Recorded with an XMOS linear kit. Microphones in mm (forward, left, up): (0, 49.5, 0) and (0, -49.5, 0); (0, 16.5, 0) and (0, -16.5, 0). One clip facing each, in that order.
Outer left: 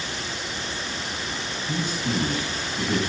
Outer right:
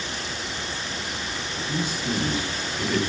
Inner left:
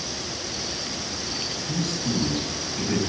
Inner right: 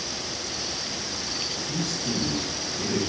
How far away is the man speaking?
About 5.5 m.